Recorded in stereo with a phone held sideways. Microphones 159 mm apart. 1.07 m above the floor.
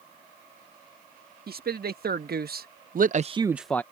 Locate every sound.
1.5 s a man speaking: 75° right (ahead or behind); by 3.8 s 15° left (ahead or behind)